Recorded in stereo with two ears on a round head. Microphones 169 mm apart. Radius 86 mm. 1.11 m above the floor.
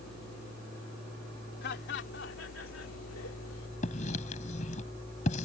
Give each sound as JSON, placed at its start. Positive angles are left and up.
{"t": 1.6, "sound": "laughter", "side_deg": 60}
{"t": 3.8, "sound": "writing", "side_deg": 40}